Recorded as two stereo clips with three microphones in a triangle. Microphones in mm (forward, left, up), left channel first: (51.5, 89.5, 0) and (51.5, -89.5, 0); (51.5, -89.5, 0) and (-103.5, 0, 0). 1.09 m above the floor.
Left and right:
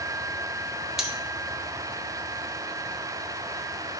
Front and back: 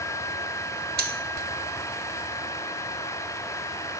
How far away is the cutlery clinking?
About 0.6 m.